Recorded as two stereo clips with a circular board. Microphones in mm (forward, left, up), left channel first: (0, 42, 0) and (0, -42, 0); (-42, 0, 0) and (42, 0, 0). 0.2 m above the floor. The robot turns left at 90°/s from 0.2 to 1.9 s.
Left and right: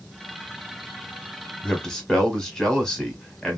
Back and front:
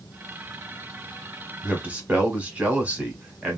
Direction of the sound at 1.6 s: 50° left.